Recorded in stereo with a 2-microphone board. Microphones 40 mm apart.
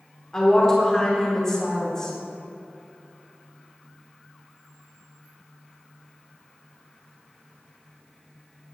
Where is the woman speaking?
15° left (ahead or behind), 2.0 m.